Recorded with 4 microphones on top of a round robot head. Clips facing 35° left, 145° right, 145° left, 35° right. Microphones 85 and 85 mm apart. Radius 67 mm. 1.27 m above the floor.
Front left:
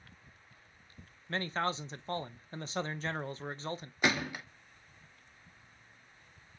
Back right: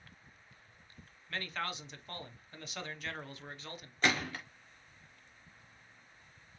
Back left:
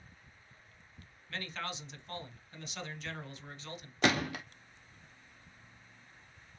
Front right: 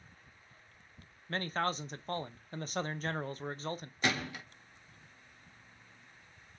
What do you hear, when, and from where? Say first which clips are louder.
1.3 s a man speaking: front left 6 dB, front right 7 dB; 10° right, 0.5 m
4.0 s a gunshot: front left 1 dB, back left 4 dB; 115° left, 0.8 m